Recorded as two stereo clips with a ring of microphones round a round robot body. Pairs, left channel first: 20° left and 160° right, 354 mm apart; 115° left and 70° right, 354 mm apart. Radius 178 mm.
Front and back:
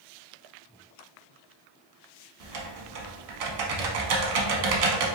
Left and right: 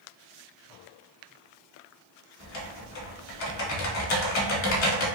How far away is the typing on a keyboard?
About 0.7 m.